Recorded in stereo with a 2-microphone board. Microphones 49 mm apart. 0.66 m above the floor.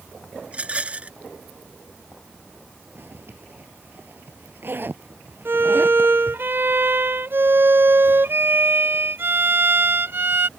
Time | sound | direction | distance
0.5 | a rattle | 30° right (ahead or behind) | ?
3.0 | a zipper | 50° right (ahead or behind) | ?
5.5 | a violin | 55° right (ahead or behind) | ?